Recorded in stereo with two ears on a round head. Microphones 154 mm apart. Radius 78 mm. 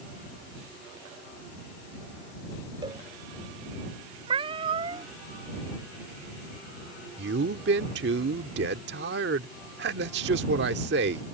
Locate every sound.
2.8 s a cowbell: 25° right (ahead or behind)
4.3 s a cat meowing: 30° right (ahead or behind)
7.2 s a man speaking: 70° right (ahead or behind)